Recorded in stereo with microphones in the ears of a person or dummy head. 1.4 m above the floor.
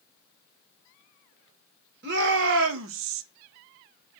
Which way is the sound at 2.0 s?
65° right (ahead or behind).